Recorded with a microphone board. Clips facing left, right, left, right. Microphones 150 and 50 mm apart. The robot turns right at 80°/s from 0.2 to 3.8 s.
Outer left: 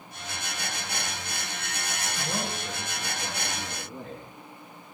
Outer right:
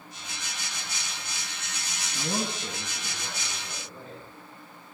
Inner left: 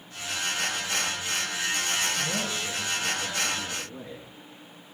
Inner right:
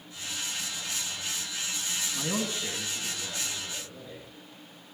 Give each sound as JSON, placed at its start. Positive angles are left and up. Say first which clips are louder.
{"t": 2.1, "sound": "a man speaking", "louder": "outer right 4 dB, inner left 2 dB", "azimuth_deg": -75, "distance_m": 2.5}